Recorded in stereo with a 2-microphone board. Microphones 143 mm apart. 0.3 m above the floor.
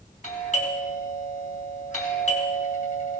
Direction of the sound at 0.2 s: 60° left (ahead or behind).